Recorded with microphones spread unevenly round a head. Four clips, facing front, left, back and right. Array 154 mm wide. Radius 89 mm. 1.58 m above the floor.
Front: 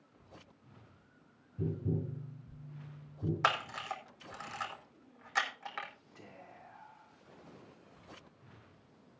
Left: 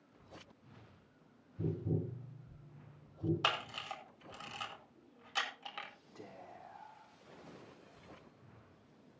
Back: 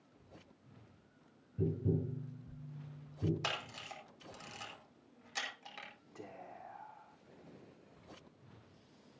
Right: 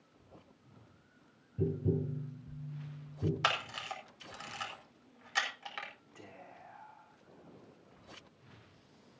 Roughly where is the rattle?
I don't hear a rattle.